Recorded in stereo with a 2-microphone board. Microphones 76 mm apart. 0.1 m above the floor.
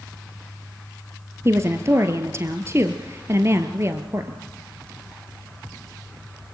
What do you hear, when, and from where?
1.4 s a woman speaking: 35° right (ahead or behind), 1.8 m